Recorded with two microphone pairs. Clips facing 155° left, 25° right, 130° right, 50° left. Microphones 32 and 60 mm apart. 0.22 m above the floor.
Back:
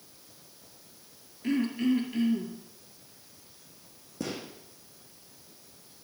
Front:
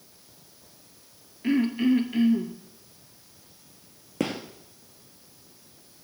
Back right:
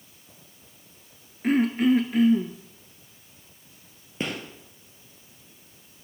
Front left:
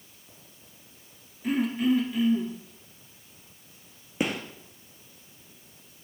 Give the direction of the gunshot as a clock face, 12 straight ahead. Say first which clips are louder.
Front 7 dB, front left 2 dB; 1 o'clock.